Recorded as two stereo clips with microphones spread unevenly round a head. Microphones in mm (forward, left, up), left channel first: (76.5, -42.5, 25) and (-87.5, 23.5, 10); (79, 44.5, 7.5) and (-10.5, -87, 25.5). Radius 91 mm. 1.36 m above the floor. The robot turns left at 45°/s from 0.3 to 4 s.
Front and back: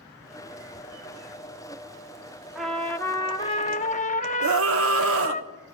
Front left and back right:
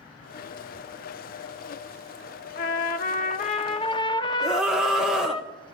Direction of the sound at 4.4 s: 150° left.